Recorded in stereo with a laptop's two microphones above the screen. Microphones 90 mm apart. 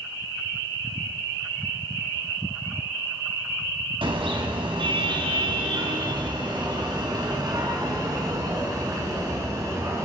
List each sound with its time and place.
4.0 s a car horn: 80° right, 3 m; by 10.1 s 40° right (ahead or behind), 5.5 m